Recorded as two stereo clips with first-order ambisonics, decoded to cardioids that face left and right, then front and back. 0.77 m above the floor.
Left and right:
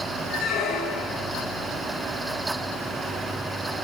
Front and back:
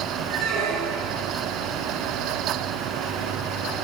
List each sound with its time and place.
0.3 s a squeak: 145° left, 8 m